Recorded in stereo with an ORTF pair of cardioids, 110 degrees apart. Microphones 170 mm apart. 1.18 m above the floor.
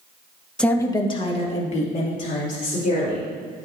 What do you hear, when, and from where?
0.6 s a woman speaking: 5° left, 1.1 m; by 3.2 s 55° left, 4.5 m